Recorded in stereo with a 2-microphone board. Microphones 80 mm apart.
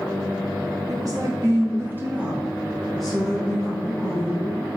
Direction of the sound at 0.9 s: 50° right (ahead or behind).